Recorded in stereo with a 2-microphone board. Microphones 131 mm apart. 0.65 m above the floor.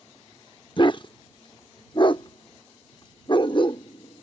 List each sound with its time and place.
0.8 s a dog barking: 35° left (ahead or behind)